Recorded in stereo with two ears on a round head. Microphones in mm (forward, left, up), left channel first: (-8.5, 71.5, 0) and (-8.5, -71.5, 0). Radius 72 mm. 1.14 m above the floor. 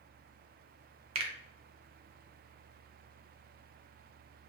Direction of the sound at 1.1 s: 40° right (ahead or behind).